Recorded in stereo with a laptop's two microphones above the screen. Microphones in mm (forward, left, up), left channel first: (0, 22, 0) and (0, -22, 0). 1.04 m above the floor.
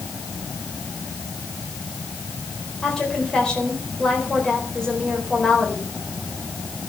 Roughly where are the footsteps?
I don't hear footsteps.